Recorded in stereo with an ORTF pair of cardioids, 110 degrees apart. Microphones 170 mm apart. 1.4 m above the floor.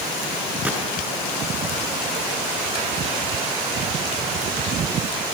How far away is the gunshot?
About 5 m.